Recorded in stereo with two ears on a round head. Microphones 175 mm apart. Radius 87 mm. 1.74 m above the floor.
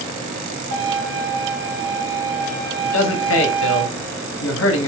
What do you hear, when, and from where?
0.7 s a violin: 65° right (ahead or behind), 1.2 m
2.8 s a man speaking: 75° left (ahead or behind), 0.7 m